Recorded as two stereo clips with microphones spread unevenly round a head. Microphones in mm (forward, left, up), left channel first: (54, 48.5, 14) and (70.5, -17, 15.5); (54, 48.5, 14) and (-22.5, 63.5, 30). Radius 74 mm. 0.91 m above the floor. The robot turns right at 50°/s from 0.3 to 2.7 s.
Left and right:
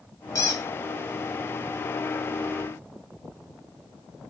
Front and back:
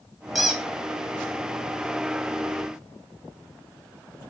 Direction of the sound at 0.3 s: 90° left.